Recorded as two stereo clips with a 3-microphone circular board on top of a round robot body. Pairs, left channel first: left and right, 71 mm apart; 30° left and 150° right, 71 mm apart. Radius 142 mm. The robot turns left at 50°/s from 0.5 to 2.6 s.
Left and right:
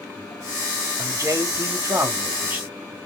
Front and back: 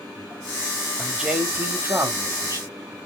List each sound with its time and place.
1.0 s a man speaking: 65° right, 1.2 m; by 2.6 s 145° right, 1.2 m